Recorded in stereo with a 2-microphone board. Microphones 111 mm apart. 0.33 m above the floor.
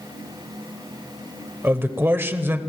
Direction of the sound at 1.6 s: 20° right (ahead or behind).